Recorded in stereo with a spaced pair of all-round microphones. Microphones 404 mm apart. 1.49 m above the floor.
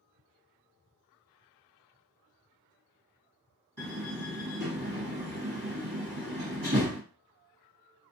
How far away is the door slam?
About 1.6 m.